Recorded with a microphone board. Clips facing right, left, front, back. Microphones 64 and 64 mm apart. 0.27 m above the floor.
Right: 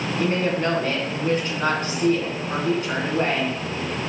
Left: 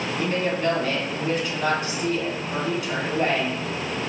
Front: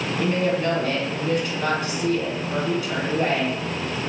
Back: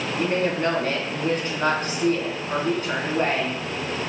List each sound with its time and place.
0.2 s a woman speaking: 135° right, 2.5 m